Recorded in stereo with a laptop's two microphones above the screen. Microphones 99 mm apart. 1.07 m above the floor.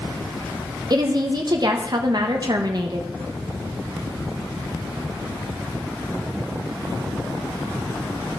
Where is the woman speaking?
45° right (ahead or behind), 1.1 m.